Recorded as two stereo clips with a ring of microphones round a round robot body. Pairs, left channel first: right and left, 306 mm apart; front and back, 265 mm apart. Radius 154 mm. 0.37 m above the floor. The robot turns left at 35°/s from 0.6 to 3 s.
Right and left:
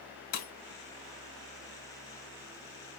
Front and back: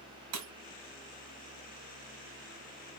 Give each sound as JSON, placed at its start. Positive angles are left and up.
{"t": 0.3, "sound": "breaking glass", "azimuth_deg": -150, "distance_m": 1.6}